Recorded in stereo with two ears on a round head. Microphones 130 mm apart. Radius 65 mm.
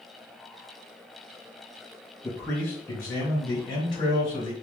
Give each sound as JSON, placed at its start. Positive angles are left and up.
{"t": 2.2, "sound": "a man speaking", "side_deg": 10, "distance_m": 2.5}